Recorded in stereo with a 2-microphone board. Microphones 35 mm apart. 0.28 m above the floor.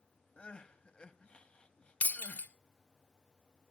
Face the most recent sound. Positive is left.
turn(degrees=55)  # may be behind; listen again after turning